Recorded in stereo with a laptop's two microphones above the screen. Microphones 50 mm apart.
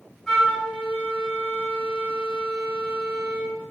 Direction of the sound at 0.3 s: 10° left (ahead or behind).